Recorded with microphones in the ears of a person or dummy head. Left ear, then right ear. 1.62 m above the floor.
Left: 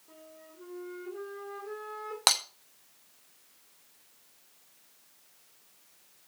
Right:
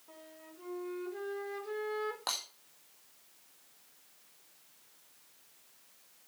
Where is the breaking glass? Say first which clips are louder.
Left 14 dB; 50° left (ahead or behind), 1.3 m.